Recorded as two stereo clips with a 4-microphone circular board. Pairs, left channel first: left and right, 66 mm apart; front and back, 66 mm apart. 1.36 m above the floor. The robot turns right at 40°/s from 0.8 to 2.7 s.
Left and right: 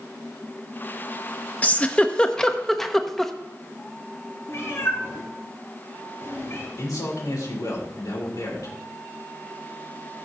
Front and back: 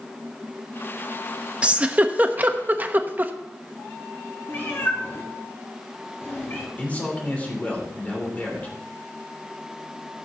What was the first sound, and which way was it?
A giggle, 130° left.